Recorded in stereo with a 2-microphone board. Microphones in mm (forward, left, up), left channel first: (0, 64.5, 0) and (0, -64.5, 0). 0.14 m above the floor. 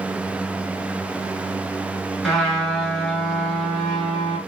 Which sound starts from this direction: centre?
A trumpet, at 2.2 s.